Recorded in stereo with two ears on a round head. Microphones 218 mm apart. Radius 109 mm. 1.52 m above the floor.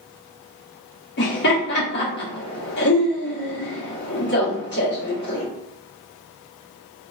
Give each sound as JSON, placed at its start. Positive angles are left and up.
{"t": 1.2, "sound": "laughter", "side_deg": 45, "distance_m": 1.3}